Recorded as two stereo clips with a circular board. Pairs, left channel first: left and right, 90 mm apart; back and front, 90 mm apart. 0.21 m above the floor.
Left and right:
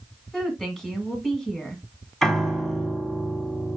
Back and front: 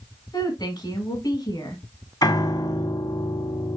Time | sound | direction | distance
0.3 | a woman speaking | 175° left | 1.9 m
2.2 | a piano | 175° left | 1.1 m